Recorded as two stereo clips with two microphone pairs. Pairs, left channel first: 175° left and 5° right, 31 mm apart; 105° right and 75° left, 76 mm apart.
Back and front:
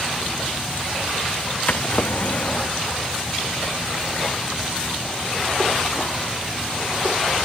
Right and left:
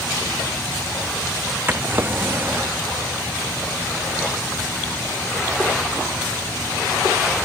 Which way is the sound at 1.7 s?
135° left.